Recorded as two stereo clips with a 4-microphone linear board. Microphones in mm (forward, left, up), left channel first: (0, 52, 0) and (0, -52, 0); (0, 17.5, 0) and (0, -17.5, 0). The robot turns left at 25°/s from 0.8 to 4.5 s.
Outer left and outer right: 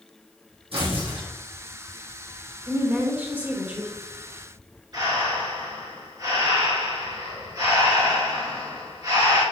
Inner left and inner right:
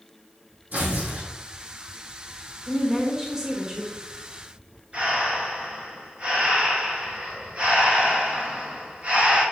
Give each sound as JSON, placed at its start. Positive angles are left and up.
{"t": 0.7, "sound": "tearing paper", "side_deg": -65, "distance_m": 3.5}
{"t": 2.7, "sound": "a woman speaking", "side_deg": -20, "distance_m": 1.4}
{"t": 4.9, "sound": "breathing", "side_deg": -40, "distance_m": 3.5}